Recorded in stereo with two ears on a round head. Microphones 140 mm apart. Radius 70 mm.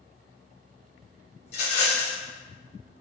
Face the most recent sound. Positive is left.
turn(degrees=45)  # may be behind; listen again after turning